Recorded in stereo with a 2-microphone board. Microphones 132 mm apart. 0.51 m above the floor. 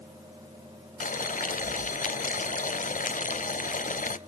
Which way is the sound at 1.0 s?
70° left (ahead or behind).